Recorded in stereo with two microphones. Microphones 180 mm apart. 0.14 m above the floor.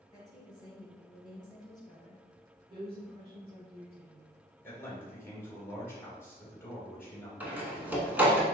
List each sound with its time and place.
0.1 s a woman speaking: 20° left (ahead or behind), 1.9 m
2.7 s a woman speaking: 35° right (ahead or behind), 1.7 m
4.6 s a man speaking: 15° left (ahead or behind), 2.0 m
7.4 s a door slam: 10° right (ahead or behind), 0.8 m